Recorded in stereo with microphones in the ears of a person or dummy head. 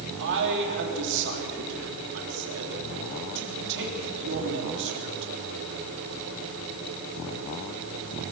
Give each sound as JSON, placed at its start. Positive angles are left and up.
{"t": 0.2, "sound": "a man speaking", "side_deg": -65, "distance_m": 3.5}